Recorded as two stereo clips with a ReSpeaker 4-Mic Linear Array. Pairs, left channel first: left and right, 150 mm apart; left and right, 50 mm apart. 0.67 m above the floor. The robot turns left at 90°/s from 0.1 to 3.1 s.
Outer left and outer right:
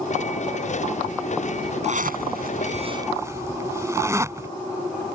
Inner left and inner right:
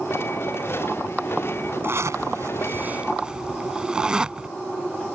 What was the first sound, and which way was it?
A zipper, 50° right (ahead or behind).